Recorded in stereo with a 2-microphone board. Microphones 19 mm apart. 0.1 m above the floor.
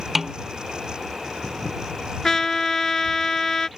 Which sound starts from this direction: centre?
A snare drum, at 0.1 s.